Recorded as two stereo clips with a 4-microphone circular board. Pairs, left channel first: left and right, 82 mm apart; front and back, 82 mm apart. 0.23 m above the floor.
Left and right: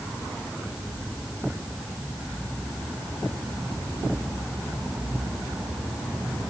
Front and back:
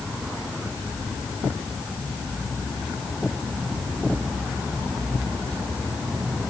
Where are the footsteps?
No footsteps in this recording.